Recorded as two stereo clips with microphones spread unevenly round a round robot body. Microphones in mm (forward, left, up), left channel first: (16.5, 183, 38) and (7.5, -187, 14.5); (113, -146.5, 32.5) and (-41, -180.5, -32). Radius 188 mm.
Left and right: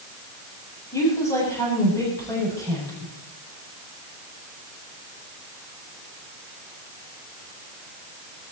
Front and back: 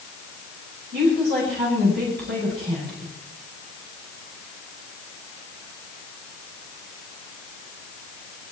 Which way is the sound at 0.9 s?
170° left.